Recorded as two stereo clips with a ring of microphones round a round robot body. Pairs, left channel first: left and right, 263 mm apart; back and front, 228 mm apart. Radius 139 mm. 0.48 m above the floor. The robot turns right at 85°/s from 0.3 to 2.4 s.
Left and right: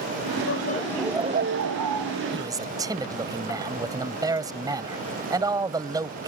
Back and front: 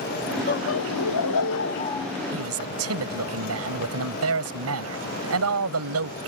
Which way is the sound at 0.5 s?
135° left.